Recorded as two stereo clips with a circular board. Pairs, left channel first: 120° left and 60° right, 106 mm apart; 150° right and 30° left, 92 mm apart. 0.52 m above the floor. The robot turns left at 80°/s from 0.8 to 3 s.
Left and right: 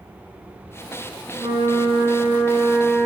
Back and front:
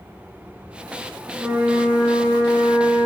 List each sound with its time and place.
1.3 s a flute: 10° right, 2.0 m; by 3.1 s 145° right, 2.0 m